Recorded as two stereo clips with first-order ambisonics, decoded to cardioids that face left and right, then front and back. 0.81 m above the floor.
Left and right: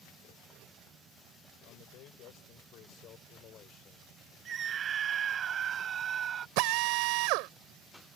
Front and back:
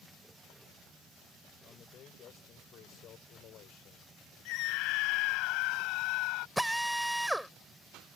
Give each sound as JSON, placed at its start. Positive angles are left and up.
{"t": 1.6, "sound": "a man speaking", "azimuth_deg": 55}
{"t": 4.5, "sound": "a scream", "azimuth_deg": -30}
{"t": 6.6, "sound": "a drill", "azimuth_deg": -90}